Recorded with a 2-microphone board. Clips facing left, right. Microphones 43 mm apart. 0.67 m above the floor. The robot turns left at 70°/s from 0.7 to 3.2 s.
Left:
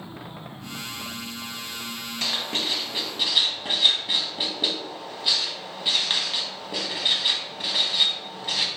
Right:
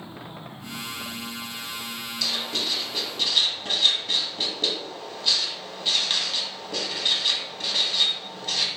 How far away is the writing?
About 0.6 m.